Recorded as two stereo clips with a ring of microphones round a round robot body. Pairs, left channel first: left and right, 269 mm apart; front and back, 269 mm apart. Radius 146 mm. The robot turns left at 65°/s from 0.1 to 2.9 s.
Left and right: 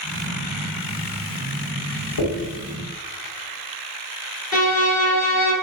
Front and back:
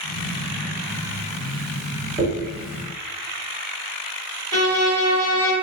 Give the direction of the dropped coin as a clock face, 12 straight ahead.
8 o'clock.